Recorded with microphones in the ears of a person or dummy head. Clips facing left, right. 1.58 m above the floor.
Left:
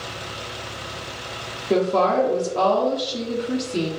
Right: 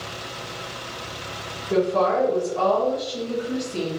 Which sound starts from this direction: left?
A woman speaking, at 1.7 s.